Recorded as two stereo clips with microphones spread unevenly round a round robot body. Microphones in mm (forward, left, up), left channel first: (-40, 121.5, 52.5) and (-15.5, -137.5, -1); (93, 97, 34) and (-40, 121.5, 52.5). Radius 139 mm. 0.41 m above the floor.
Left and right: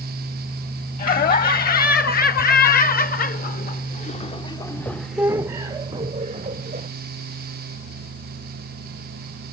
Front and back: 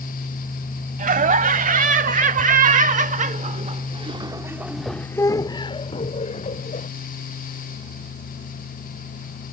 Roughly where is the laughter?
Behind left.